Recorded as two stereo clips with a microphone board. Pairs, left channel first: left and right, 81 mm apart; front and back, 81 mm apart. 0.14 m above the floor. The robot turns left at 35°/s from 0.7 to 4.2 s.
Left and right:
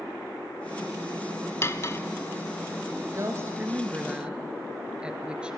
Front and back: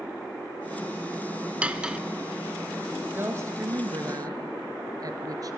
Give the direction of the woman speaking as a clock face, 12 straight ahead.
4 o'clock.